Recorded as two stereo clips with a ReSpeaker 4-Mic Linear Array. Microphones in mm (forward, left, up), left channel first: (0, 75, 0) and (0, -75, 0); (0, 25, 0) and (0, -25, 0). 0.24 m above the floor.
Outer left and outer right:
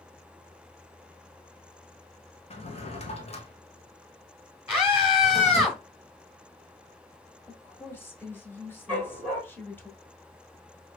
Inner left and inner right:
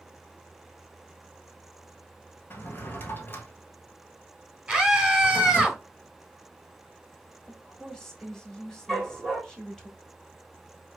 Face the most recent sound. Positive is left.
turn(degrees=10)  # may be behind; listen again after turning